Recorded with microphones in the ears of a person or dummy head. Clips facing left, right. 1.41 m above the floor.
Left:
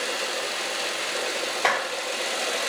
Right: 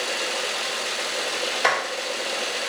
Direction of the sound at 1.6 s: 15° right (ahead or behind).